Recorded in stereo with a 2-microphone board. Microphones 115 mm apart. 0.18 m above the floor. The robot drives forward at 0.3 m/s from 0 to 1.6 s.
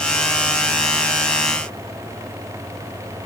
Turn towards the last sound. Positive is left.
No sound to turn to.